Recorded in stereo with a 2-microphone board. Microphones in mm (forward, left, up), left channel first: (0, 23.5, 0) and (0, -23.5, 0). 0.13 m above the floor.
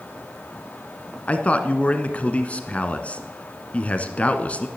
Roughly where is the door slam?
No door slam in this recording.